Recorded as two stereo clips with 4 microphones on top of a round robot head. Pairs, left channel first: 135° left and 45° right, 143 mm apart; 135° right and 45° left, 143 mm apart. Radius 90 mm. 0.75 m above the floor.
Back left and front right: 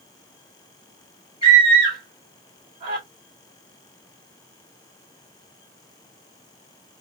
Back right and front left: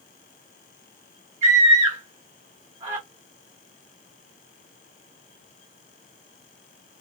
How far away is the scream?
About 1.6 m.